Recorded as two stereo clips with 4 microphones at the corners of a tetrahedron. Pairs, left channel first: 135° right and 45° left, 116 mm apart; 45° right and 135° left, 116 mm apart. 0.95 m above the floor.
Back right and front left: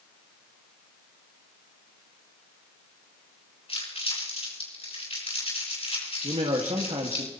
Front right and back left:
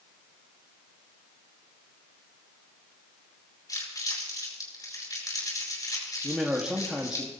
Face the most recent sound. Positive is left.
turn(degrees=55)